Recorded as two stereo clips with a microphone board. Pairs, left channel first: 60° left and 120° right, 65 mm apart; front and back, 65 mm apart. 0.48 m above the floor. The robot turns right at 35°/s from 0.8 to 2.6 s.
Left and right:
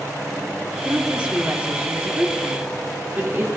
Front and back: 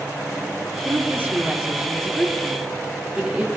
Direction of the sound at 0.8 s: 175° left.